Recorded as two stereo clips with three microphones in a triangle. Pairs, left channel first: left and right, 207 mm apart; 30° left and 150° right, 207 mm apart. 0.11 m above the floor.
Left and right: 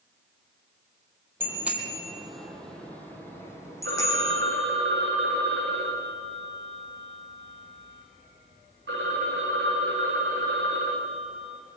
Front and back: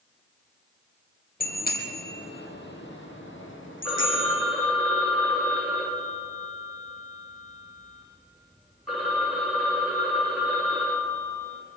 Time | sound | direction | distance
1.4 | a bicycle bell | 10° right | 2 m
3.9 | a phone ringing | 60° right | 5.5 m